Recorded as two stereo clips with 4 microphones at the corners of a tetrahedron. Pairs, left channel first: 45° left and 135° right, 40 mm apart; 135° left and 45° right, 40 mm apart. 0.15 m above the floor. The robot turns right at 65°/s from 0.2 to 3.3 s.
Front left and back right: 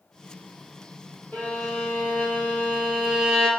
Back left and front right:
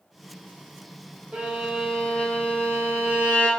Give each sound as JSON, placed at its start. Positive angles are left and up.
{"t": 1.3, "sound": "a violin", "azimuth_deg": 10, "distance_m": 3.0}